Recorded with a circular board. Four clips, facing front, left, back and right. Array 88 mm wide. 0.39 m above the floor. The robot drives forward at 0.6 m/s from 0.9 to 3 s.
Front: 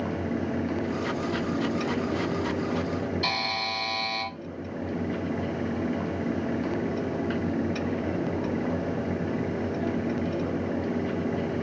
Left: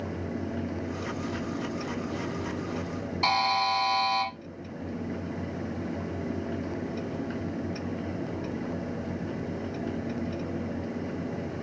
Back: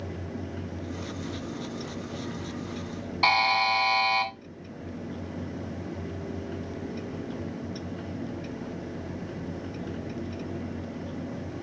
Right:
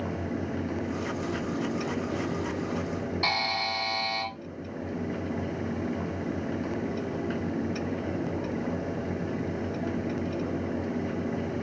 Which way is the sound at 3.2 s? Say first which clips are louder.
Left 8 dB, back 7 dB; 170° left.